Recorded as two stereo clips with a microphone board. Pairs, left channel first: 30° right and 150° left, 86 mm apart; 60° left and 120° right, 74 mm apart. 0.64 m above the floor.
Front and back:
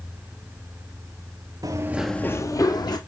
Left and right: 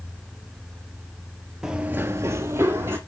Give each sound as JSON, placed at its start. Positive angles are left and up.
{"t": 1.6, "sound": "running footsteps", "azimuth_deg": 160, "distance_m": 0.8}